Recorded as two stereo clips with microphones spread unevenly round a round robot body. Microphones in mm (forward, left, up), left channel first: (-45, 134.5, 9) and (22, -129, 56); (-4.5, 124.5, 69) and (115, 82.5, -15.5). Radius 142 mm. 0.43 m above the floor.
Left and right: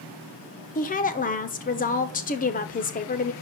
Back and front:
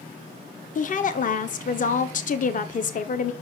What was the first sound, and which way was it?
A woman speaking, 115° left.